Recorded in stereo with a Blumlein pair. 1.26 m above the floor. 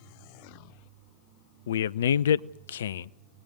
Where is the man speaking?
65° left, 0.6 m.